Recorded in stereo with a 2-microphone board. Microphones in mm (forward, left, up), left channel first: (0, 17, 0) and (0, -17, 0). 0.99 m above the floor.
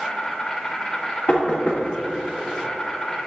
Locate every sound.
0.0 s an insect: 20° left (ahead or behind), 1.8 m
1.3 s knocking: 40° left (ahead or behind), 1.7 m